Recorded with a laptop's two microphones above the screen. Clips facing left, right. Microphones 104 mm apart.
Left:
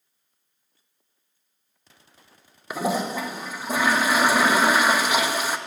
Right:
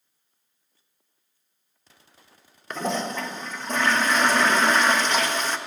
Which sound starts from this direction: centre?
A toilet flushing, at 2.7 s.